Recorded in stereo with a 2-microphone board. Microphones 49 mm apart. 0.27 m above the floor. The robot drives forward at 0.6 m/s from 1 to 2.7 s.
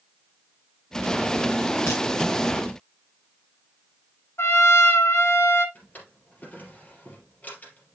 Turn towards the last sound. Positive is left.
turn(degrees=35)  # may be behind; listen again after turning